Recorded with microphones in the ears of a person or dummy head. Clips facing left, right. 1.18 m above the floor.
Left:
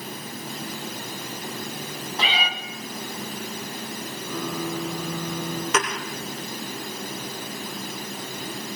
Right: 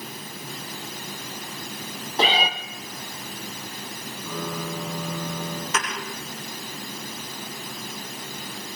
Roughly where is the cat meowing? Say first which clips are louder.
Right 6 dB; right.